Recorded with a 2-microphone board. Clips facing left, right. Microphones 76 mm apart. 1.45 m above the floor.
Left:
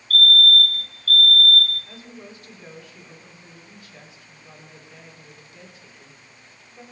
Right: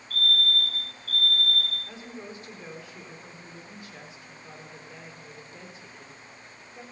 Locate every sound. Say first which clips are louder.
0.1 s a fire alarm: left 8 dB; 65° left (ahead or behind), 2 m
1.9 s a woman speaking: right 1 dB; 25° right (ahead or behind), 3.5 m